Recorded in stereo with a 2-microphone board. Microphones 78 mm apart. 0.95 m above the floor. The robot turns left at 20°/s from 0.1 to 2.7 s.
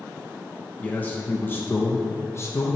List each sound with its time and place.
0.8 s a man speaking: 150° left, 0.8 m; by 2.8 s 110° left, 0.8 m